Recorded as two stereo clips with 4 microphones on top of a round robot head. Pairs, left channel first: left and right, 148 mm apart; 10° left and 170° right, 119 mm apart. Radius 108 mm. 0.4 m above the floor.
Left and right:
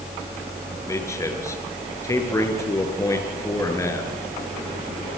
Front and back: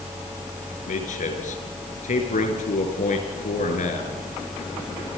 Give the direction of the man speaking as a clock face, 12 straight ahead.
11 o'clock.